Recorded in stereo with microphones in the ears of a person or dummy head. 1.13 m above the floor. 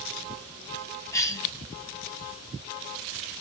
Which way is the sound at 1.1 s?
15° left (ahead or behind).